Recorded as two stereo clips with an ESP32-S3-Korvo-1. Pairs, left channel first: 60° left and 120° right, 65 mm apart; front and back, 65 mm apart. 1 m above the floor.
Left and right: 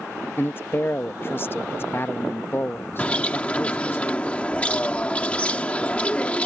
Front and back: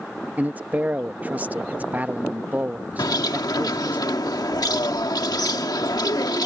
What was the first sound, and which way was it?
A man speaking, 115° left.